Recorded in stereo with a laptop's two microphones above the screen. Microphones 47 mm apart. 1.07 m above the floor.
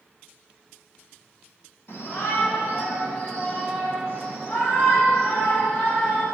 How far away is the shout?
About 2.5 m.